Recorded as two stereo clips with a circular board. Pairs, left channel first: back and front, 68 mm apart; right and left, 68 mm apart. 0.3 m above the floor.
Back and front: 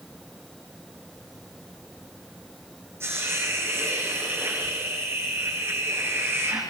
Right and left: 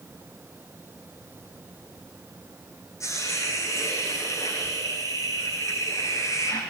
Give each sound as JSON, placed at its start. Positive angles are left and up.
{"t": 3.0, "sound": "a hiss", "azimuth_deg": -50, "distance_m": 9.0}